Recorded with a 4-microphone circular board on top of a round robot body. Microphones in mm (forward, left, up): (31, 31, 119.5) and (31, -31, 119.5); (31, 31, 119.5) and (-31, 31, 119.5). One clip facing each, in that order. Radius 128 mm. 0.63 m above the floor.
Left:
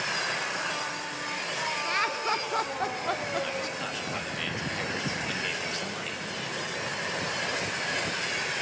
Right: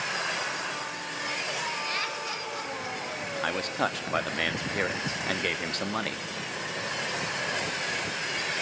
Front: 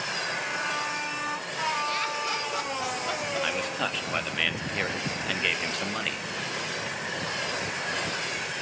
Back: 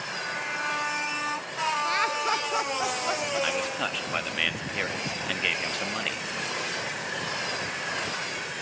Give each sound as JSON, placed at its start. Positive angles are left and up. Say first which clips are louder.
{"t": 1.9, "sound": "laughter", "louder": "left 5 dB, back 4 dB", "azimuth_deg": 145, "distance_m": 1.6}
{"t": 3.4, "sound": "a man speaking", "louder": "right 4 dB, back 1 dB", "azimuth_deg": -90, "distance_m": 1.3}